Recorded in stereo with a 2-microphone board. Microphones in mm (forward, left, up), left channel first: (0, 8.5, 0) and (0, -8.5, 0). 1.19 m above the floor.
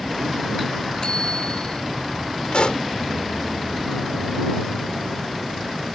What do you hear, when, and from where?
1.0 s a bicycle bell: 50° left (ahead or behind)
2.5 s a pop: 65° left (ahead or behind)